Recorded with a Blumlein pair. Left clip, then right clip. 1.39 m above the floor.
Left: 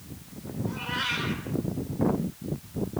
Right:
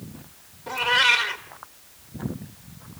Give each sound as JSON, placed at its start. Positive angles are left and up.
{"t": 0.7, "sound": "a cat meowing", "azimuth_deg": -35, "distance_m": 2.5}